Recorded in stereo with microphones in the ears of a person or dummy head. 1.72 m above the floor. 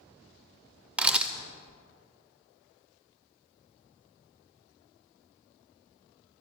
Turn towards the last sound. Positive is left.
turn(degrees=-10)  # may be behind; listen again after turning